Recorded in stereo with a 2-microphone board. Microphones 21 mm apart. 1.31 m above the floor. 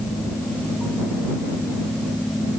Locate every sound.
Only background noise.